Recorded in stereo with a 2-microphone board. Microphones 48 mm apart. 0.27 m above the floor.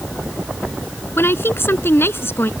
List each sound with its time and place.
1.2 s a woman speaking: 50° left (ahead or behind)